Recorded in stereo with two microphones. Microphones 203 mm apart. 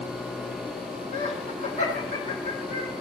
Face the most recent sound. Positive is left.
turn(degrees=35)  # may be behind; listen again after turning